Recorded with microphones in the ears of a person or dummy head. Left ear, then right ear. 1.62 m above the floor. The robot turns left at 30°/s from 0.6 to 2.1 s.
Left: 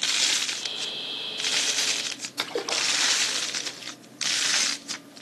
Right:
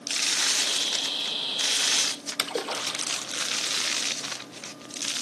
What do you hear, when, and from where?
2.4 s a splash: 5° right (ahead or behind), 0.8 m